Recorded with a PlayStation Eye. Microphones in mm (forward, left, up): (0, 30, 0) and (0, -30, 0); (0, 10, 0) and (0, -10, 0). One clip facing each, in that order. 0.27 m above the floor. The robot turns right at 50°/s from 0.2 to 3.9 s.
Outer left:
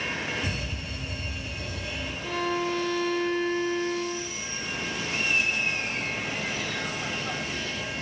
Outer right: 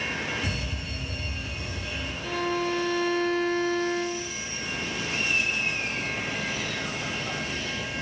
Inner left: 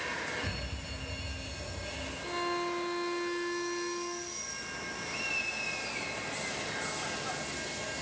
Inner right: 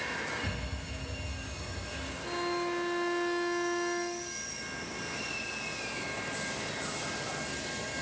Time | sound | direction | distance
0.4 | a fire alarm | 40° left | 10 m
2.2 | a violin | 165° left | 4.5 m
5.0 | laughter | 5° left (ahead or behind) | 5 m